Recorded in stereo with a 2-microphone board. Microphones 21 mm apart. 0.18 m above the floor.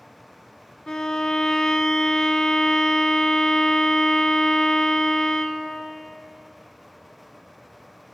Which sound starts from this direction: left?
A violin, at 0.9 s.